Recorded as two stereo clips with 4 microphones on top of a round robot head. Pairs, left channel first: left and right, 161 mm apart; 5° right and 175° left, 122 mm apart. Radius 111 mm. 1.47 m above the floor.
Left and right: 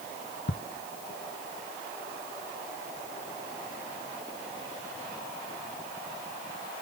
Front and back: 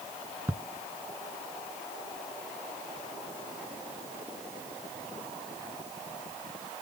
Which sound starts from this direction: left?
Ticking, at 0.5 s.